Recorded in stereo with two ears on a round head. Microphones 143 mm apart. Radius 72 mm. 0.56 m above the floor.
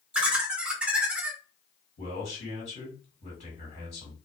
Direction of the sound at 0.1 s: 5° right (ahead or behind).